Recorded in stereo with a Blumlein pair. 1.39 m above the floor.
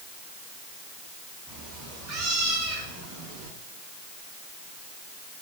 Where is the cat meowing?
15° right, 5 m; by 3.5 s 25° right, 7 m.